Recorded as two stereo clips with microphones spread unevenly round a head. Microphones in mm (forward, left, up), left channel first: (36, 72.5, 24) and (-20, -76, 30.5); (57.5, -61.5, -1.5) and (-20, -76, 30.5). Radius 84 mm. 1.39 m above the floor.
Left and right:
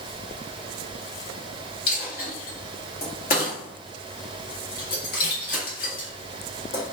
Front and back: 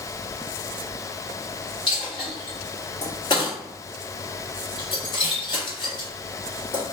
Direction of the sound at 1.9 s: 75° left.